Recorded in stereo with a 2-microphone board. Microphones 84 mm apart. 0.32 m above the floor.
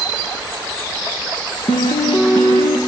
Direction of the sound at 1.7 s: 70° left (ahead or behind).